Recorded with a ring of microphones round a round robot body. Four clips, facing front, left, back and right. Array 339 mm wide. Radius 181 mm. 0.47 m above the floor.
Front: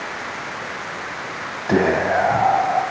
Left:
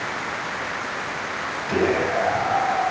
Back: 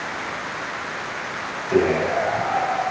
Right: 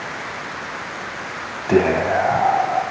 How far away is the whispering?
About 3.5 m.